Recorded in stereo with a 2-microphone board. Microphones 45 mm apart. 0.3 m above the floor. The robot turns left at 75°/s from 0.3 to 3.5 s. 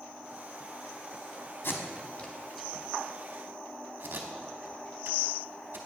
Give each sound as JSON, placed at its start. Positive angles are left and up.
{"t": 1.6, "sound": "tape being pulled", "side_deg": 65, "distance_m": 0.8}